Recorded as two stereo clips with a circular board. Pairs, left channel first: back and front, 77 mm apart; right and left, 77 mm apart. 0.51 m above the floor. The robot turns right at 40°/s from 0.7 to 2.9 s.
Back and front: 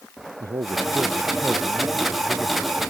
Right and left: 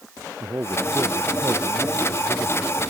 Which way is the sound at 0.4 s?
30° left.